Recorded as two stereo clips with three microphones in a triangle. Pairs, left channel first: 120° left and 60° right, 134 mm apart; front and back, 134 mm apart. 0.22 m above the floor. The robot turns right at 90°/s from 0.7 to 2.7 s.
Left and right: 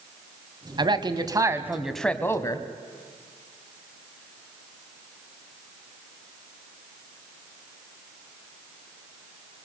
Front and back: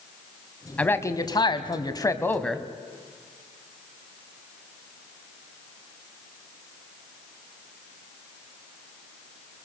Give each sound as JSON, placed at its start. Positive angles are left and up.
{"t": 0.8, "sound": "a man speaking", "azimuth_deg": -75, "distance_m": 1.4}